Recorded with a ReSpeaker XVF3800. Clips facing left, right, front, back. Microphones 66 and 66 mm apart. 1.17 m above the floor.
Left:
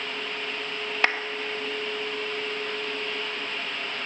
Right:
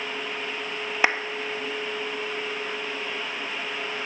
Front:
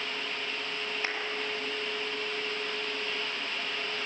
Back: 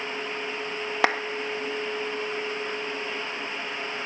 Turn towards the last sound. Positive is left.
turn(degrees=-165)